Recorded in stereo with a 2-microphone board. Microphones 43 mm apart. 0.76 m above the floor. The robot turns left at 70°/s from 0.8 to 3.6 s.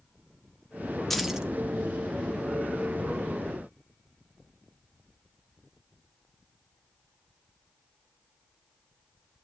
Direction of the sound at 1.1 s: 5° left (ahead or behind).